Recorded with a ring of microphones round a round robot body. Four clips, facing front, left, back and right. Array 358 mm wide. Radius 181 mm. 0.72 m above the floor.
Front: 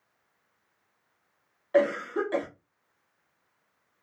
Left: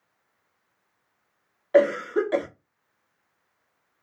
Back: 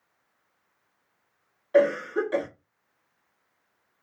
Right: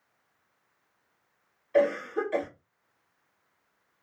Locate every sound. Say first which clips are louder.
1.7 s a cough: left 5 dB, back 3 dB; 90° left, 1.4 m